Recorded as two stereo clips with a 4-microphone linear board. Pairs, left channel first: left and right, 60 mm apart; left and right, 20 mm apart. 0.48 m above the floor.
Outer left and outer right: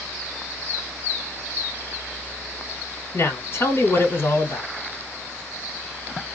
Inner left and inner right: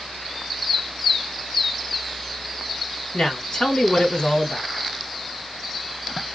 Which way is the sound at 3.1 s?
45° left (ahead or behind).